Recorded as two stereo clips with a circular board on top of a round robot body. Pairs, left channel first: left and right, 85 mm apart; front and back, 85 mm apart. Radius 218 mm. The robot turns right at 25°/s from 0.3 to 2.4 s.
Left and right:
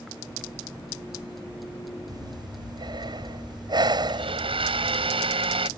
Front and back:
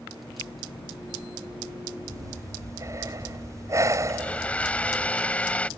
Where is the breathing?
135° right; by 5.1 s 125° right.